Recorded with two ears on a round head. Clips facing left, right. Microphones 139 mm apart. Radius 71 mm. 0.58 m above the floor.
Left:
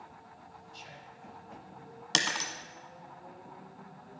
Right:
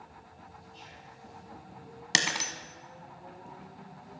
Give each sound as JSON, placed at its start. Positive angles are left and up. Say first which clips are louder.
{"t": 0.7, "sound": "whispering", "louder": "even", "side_deg": 50, "distance_m": 3.0}
{"t": 2.1, "sound": "breaking glass", "louder": "right 1 dB", "side_deg": -10, "distance_m": 1.3}